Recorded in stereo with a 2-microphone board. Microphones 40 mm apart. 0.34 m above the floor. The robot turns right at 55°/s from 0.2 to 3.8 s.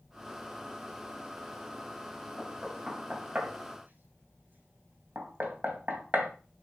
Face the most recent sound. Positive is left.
turn(degrees=-50)  # may be behind; listen again after turning